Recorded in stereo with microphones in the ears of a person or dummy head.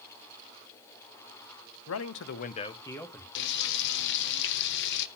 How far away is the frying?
About 0.8 m.